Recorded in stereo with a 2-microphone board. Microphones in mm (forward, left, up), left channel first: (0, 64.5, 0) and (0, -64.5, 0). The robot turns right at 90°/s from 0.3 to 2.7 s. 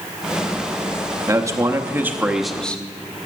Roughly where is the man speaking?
Right.